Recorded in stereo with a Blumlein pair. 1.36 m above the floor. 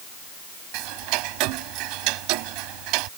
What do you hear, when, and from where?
0.7 s ticking: 40° right